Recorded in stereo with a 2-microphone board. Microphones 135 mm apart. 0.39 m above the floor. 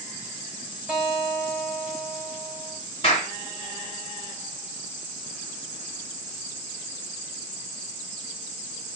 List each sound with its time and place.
0.9 s a guitar: centre (ahead or behind), 1.7 m
3.0 s a clap: 50° left (ahead or behind), 3 m